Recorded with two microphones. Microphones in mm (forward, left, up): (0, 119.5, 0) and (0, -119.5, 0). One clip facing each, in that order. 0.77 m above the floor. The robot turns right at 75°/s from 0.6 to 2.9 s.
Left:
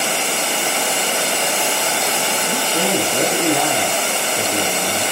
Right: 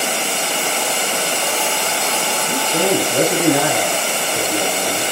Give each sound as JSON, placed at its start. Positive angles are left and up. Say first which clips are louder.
{"t": 2.5, "sound": "a man speaking", "louder": "right 4 dB", "azimuth_deg": -135, "distance_m": 5.5}